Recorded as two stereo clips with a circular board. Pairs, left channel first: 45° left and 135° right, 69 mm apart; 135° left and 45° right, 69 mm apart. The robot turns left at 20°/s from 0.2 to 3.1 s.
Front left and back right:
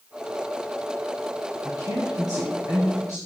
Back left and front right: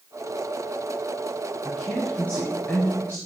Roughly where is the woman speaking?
Behind right.